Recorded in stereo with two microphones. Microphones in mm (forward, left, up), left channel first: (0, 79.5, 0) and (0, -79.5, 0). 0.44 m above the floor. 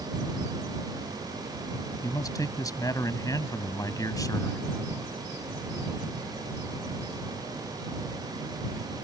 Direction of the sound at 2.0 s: 20° left (ahead or behind).